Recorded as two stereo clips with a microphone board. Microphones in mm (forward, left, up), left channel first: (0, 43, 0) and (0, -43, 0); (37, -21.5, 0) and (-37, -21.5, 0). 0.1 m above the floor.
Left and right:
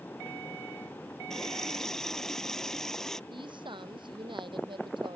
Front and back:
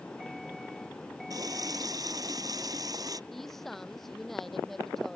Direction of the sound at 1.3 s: 175° left.